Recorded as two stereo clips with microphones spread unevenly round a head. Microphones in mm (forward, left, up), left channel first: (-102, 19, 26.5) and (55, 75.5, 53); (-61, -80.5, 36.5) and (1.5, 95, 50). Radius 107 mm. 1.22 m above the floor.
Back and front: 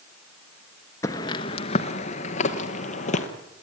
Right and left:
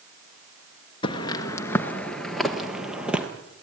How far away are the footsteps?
About 1.2 m.